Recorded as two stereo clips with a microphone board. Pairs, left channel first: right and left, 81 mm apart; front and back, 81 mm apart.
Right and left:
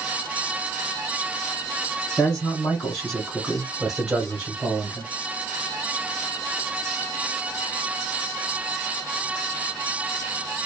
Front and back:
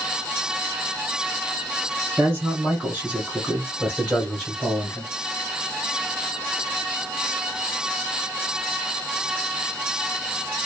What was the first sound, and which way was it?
A man speaking, 155° right.